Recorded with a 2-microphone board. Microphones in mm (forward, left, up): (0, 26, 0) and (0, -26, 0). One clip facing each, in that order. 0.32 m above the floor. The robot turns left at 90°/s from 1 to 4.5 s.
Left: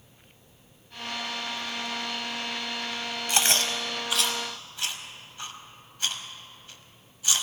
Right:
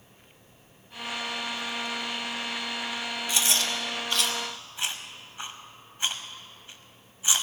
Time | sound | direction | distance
3.3 | chewing | 60° left (ahead or behind) | 1.0 m